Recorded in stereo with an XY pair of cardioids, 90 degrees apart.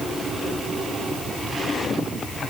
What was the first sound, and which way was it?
Only background noise.